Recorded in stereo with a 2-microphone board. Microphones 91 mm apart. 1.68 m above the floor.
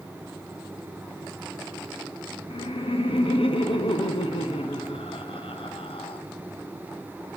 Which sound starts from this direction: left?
Laughter, at 2.5 s.